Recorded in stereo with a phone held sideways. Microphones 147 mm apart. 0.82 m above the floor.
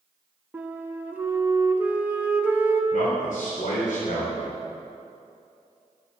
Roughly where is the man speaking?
Left.